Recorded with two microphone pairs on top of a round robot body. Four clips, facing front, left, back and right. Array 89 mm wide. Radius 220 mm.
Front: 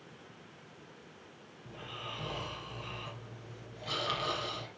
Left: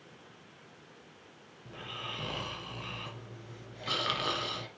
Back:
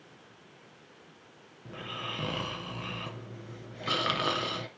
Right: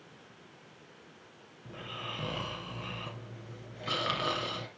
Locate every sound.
1.6 s snoring: 175° right, 2 m